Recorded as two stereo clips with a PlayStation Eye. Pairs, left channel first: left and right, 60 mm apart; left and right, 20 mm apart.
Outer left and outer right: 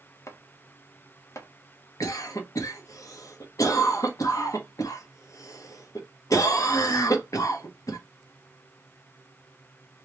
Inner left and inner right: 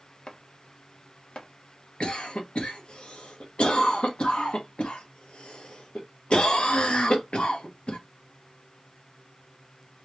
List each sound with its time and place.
0.3 s chopping: 55° left (ahead or behind), 0.8 m
2.0 s a cough: 70° left (ahead or behind), 1.2 m